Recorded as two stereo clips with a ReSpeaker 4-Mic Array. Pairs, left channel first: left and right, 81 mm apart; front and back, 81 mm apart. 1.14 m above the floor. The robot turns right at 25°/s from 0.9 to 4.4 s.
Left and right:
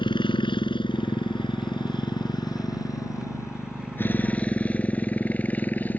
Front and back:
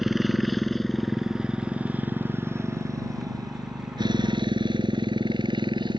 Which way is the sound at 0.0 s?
95° left.